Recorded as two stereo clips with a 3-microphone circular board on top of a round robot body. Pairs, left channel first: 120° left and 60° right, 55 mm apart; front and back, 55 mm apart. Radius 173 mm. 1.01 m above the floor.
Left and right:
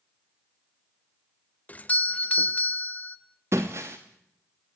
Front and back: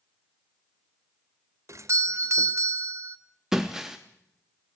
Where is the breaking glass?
105° right, 0.5 m.